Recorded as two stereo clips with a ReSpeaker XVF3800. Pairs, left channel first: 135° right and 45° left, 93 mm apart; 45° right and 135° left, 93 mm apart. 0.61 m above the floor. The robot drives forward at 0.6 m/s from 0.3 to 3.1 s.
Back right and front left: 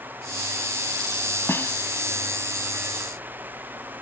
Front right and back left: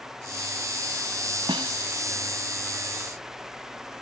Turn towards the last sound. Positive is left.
turn(degrees=165)